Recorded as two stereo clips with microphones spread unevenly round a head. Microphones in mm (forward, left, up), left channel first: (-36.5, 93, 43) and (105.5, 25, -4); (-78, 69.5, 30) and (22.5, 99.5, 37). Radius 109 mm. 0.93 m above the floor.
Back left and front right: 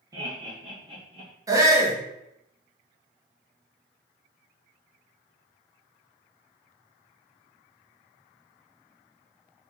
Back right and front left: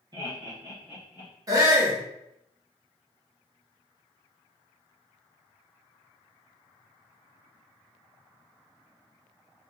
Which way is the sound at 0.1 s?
10° right.